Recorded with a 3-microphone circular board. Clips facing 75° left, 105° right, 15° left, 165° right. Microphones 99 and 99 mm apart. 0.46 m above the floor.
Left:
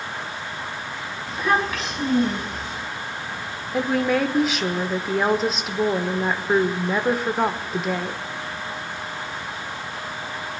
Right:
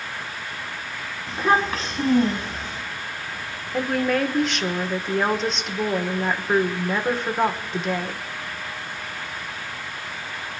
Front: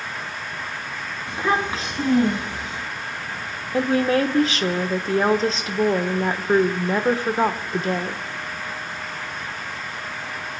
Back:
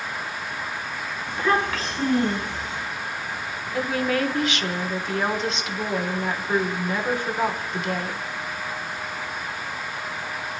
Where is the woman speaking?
10° right, 1.0 m.